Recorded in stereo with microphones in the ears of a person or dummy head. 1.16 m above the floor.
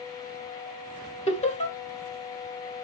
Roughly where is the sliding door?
No sliding door in this recording.